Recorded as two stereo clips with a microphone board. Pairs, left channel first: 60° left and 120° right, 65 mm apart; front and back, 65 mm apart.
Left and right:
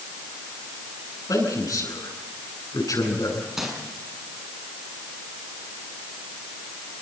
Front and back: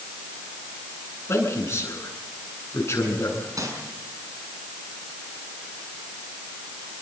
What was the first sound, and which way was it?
A man speaking, 45° left.